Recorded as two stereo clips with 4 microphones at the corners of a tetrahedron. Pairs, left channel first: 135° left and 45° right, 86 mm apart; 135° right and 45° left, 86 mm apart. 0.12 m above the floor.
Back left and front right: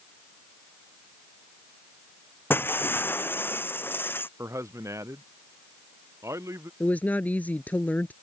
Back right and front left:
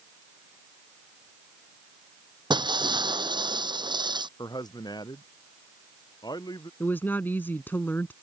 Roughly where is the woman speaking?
Behind.